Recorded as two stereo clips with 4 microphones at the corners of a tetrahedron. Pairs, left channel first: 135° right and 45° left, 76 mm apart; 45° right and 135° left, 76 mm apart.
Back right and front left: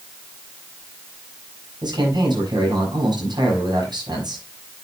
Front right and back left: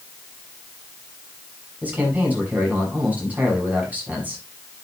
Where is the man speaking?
65° left, 7 m.